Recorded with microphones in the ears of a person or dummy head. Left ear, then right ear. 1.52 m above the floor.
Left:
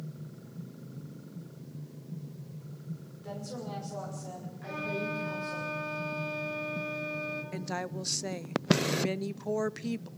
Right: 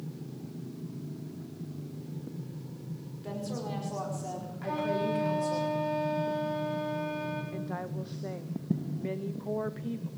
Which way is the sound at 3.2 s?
10° right (ahead or behind).